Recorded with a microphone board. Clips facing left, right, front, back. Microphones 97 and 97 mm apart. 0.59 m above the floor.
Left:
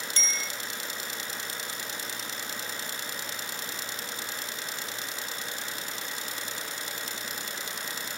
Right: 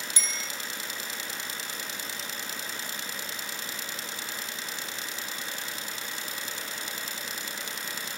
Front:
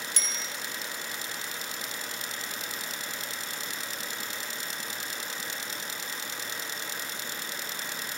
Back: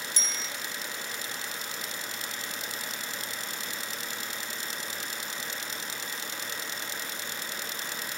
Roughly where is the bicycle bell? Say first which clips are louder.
Left 2 dB, even; ahead.